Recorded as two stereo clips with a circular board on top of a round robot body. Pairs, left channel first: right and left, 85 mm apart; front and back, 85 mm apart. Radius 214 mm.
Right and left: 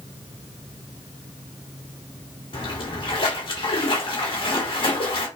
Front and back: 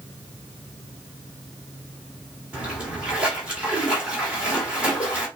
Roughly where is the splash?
Right.